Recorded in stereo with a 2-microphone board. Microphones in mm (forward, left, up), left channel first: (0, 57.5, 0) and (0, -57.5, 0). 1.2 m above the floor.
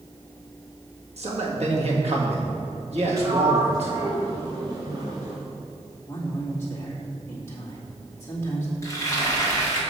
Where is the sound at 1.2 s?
60° right (ahead or behind), 1.8 m.